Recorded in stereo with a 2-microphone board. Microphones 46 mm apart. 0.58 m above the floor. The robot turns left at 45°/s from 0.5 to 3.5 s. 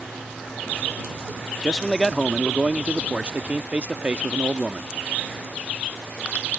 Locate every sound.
1.6 s a man speaking: 10° left; by 4.9 s 75° right